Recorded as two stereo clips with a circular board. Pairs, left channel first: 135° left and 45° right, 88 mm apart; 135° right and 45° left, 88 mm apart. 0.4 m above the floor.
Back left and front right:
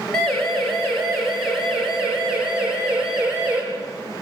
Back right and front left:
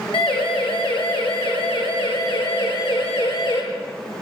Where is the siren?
140° right, 8.5 m; by 3.6 s 120° right, 9.5 m.